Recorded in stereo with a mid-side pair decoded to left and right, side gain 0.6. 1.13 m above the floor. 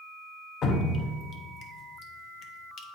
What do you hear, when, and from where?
0.6 s dripping: 45° left, 1.0 m